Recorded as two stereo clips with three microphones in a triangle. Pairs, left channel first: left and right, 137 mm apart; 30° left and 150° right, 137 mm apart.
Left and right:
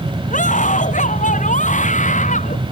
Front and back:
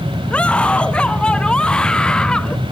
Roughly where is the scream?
Left.